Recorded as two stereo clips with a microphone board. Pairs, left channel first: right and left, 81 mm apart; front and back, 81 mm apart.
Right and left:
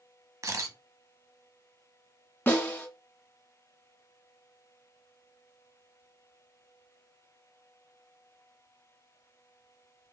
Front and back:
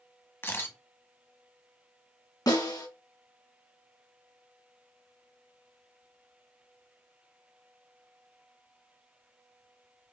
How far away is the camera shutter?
About 0.6 m.